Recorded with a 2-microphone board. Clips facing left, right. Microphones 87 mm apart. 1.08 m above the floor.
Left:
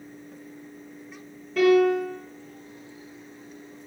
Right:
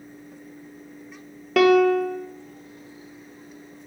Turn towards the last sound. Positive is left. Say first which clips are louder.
# right 2 dB
turn(degrees=-75)  # may be behind; listen again after turning